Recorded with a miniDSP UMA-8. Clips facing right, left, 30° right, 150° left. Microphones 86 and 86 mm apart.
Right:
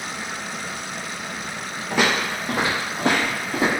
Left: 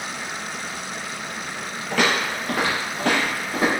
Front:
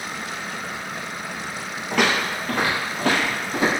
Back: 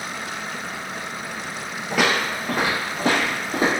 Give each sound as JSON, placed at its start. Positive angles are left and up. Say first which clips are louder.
{"t": 1.9, "sound": "footsteps", "louder": "even, even", "azimuth_deg": -130, "distance_m": 1.1}